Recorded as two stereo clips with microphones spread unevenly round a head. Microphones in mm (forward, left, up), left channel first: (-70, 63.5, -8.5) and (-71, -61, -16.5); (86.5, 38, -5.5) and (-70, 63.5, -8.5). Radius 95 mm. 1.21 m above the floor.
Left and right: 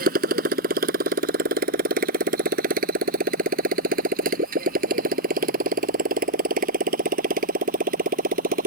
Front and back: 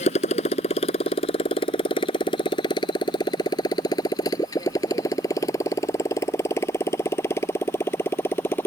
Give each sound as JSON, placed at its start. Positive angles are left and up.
{"t": 0.0, "sound": "a motorcycle", "azimuth_deg": -65}